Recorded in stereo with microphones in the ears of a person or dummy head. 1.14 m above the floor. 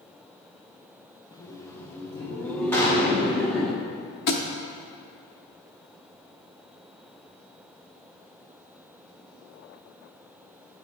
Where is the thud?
60° left (ahead or behind), 0.9 m.